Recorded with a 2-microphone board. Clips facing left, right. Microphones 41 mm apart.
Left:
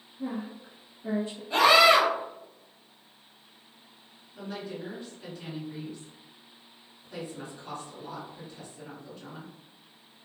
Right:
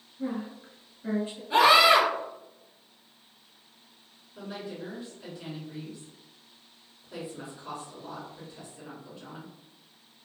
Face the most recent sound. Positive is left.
turn(degrees=-15)  # may be behind; listen again after turning